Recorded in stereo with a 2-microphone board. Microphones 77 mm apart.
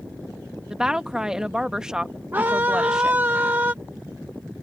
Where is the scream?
30° right (ahead or behind).